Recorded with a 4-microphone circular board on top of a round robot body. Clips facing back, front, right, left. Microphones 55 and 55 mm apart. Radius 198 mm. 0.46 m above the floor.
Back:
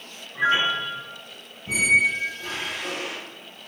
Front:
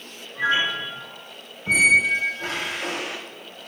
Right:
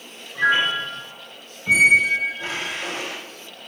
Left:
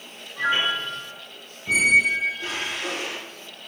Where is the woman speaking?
No woman speaking in this recording.